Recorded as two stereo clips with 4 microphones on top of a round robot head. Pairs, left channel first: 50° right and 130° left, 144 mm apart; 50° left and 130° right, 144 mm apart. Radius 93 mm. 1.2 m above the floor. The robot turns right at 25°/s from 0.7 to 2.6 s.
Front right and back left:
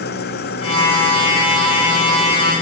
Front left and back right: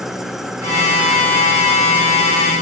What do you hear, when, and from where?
0.0 s an engine running: 45° right; by 2.6 s 5° left